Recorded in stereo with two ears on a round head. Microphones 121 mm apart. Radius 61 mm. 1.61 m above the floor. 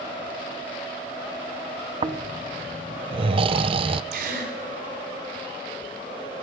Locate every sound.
2.0 s snoring: 40° right (ahead or behind), 0.6 m
4.1 s a gasp: 70° right (ahead or behind), 4.5 m